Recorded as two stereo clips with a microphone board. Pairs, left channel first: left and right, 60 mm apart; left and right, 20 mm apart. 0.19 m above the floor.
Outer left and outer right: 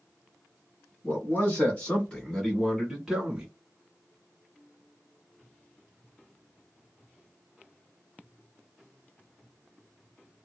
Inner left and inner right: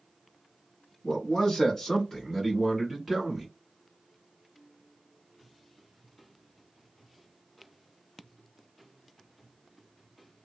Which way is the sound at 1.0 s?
35° left (ahead or behind).